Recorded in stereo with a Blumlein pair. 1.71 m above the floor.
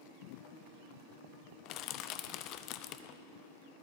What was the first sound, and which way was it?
Crushing, 40° left.